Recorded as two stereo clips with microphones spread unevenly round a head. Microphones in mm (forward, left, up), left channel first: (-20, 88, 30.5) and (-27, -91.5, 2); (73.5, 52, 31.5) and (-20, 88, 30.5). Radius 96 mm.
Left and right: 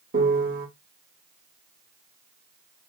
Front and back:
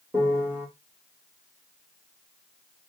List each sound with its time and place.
0.1 s a piano: 120° right, 1.4 m